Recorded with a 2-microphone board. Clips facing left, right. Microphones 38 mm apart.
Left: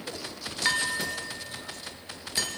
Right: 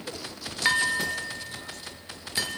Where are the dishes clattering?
15° right (ahead or behind), 1.4 m.